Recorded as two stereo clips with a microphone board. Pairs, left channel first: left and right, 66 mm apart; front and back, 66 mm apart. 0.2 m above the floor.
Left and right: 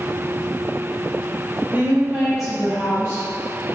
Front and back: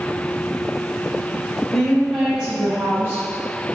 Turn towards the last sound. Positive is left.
turn(degrees=130)